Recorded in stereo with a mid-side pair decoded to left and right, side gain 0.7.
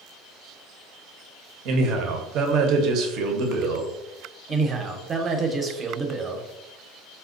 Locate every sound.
1.6 s a man speaking: 55° right, 0.7 m
4.5 s a man speaking: 30° right, 0.7 m